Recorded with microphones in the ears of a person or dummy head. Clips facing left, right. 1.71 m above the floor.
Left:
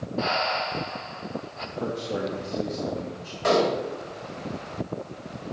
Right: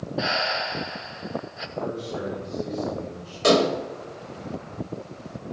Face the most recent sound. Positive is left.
turn(degrees=-45)  # may be behind; listen again after turning